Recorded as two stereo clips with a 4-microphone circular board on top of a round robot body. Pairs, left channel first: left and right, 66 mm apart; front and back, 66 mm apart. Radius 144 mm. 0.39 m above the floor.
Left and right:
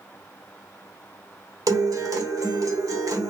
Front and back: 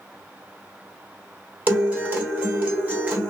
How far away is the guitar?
About 1.2 m.